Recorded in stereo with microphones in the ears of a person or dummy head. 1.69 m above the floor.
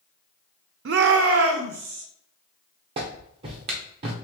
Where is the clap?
35° right (ahead or behind), 0.8 m.